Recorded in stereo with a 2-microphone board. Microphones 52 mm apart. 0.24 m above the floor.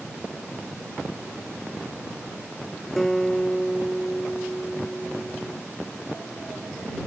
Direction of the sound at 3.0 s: 5° left (ahead or behind).